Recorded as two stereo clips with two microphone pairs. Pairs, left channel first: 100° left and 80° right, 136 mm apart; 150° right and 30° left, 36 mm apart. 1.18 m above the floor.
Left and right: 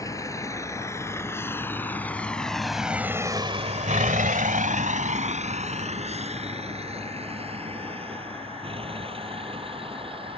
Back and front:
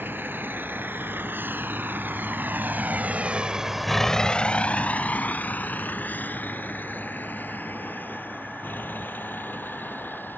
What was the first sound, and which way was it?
A vehicle, 30° left.